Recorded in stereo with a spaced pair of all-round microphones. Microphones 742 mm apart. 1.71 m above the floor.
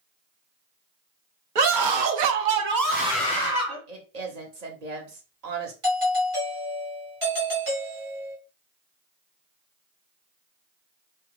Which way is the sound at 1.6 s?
80° right.